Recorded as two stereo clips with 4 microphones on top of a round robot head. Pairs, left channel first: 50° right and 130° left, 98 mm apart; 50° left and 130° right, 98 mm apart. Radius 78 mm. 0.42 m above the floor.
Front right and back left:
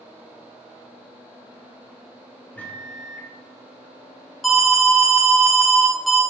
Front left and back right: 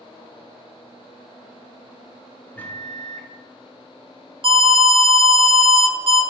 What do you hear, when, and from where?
2.6 s a microwave: 5° left, 0.7 m
4.4 s an alarm: 140° right, 0.9 m